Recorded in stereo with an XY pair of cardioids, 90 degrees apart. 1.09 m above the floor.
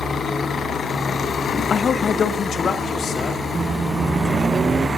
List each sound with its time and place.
1.7 s a man speaking: 50° left, 0.8 m
3.5 s a microwave: 45° right, 0.6 m